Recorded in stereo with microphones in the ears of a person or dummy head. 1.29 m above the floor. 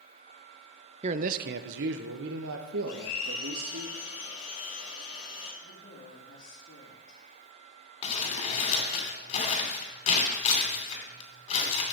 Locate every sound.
1.0 s a man speaking: 35° right (ahead or behind), 0.5 m; by 3.9 s 85° right, 2 m
2.9 s a blender: 50° left (ahead or behind), 4 m
5.6 s a woman speaking: 65° left (ahead or behind), 2.5 m
8.0 s crumpling: 40° left (ahead or behind), 3 m